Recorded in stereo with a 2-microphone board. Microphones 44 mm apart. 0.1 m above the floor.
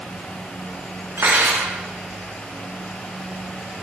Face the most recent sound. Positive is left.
turn(degrees=-80)